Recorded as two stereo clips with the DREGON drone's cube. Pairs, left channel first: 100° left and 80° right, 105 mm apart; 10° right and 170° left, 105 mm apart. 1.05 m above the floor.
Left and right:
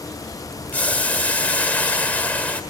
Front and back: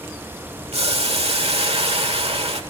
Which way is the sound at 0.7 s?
175° left.